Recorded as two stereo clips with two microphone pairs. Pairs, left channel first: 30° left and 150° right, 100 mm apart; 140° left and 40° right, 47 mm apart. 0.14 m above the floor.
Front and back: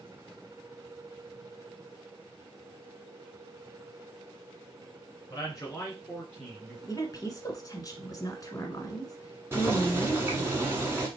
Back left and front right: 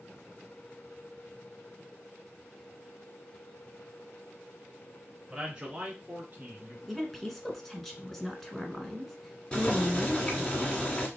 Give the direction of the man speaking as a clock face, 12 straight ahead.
11 o'clock.